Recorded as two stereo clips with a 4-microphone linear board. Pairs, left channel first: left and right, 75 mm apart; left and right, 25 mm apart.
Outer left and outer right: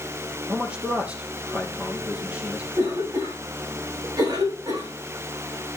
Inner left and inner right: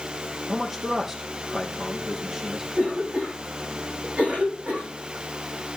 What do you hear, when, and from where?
0.5 s a man speaking: 15° right (ahead or behind), 4 m
2.7 s a cough: 60° right (ahead or behind), 6.5 m